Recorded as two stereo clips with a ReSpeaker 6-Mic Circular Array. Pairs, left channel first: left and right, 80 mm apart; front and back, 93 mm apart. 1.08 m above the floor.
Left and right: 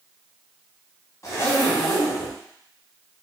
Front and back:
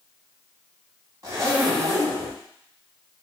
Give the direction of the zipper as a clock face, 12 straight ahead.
7 o'clock.